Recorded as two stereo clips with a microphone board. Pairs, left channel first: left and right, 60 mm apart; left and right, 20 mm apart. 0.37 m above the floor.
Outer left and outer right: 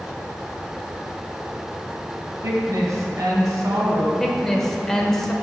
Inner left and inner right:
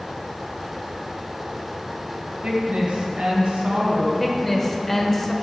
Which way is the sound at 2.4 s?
60° right (ahead or behind).